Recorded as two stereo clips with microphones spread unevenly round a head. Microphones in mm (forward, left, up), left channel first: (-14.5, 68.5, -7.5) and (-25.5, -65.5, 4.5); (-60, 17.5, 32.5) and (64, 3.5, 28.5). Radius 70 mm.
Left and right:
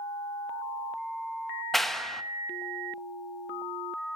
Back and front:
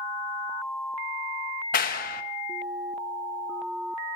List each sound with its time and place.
1.7 s a clap: 175° left, 1.1 m